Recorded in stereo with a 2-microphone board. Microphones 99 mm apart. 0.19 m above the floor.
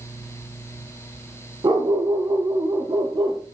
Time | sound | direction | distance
1.6 | a dog barking | 55° right (ahead or behind) | 3 m